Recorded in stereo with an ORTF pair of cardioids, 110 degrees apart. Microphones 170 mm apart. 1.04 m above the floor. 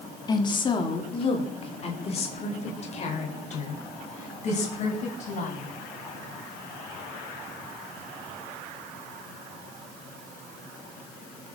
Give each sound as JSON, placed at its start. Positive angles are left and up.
{"t": 0.3, "sound": "a woman speaking", "azimuth_deg": 25, "distance_m": 2.0}